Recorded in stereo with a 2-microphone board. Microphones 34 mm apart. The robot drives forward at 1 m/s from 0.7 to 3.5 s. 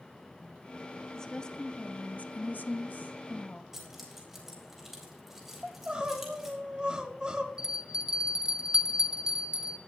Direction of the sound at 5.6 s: 25° right (ahead or behind).